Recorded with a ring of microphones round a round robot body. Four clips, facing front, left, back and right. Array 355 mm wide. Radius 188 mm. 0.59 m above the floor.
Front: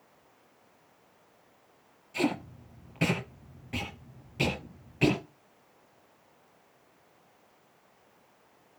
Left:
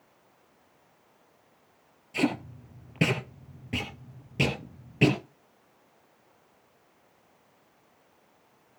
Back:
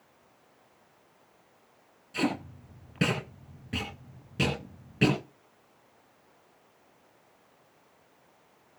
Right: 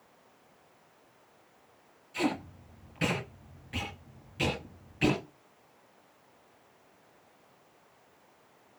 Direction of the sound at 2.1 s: 120° left.